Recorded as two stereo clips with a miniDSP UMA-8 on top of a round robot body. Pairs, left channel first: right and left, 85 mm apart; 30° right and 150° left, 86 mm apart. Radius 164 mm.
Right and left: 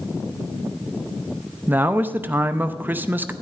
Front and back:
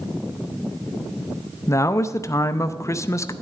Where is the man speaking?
25° left, 0.8 m.